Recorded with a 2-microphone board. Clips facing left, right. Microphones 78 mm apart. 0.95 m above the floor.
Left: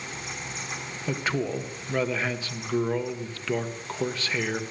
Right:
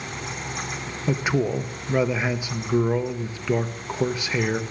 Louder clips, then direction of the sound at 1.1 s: Right 5 dB; 15° right (ahead or behind).